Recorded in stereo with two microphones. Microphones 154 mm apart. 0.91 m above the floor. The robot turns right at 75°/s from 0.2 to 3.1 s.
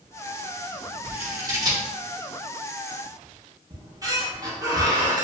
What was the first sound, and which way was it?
Scissors, 15° right (ahead or behind).